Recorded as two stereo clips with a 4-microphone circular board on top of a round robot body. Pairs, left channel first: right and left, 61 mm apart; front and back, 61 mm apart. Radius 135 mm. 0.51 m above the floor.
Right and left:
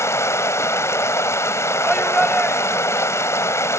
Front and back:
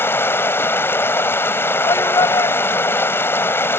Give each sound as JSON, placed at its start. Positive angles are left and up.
{"t": 0.0, "sound": "running water", "azimuth_deg": -50}
{"t": 1.8, "sound": "a shout", "azimuth_deg": 0}